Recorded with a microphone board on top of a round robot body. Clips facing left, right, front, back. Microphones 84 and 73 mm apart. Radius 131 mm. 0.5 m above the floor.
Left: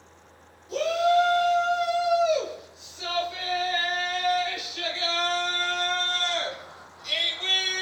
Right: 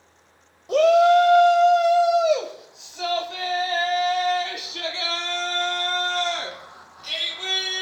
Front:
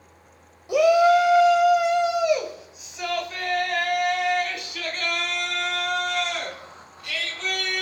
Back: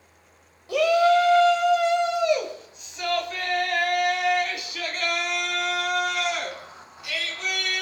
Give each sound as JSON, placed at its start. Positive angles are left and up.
{"t": 0.7, "sound": "a shout", "azimuth_deg": -70, "distance_m": 2.5}